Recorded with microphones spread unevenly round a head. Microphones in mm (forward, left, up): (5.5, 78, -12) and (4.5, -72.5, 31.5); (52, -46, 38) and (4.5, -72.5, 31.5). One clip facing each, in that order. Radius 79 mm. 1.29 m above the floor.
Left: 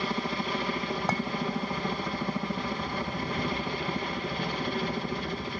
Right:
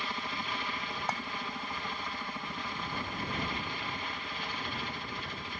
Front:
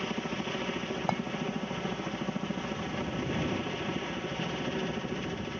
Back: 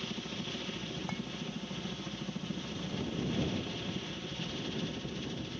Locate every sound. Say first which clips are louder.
0.0 s a helicopter: left 8 dB, front 7 dB; 80° left
1.1 s a clink: left 6 dB, front 11 dB; 60° left